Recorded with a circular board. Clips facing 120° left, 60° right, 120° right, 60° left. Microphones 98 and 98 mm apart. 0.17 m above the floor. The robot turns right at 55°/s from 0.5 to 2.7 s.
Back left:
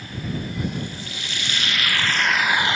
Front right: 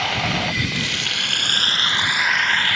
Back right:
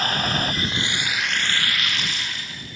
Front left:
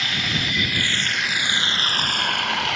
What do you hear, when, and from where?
0.0 s running water: 70° right; by 2.8 s 50° left